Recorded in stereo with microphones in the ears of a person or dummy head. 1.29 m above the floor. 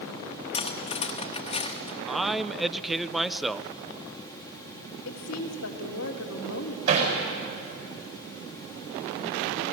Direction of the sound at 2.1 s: Centre (ahead or behind).